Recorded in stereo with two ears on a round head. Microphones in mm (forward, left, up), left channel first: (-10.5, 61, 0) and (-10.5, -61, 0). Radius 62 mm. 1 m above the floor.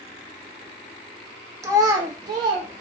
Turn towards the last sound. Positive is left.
turn(degrees=-35)  # may be behind; listen again after turning